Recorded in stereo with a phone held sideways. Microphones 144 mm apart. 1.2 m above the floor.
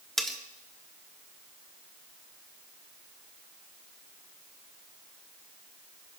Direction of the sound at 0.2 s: Centre (ahead or behind).